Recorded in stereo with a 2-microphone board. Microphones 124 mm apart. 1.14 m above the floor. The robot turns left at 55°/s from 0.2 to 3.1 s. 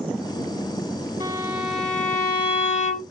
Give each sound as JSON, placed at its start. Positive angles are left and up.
{"t": 1.2, "sound": "a violin", "azimuth_deg": -150, "distance_m": 3.0}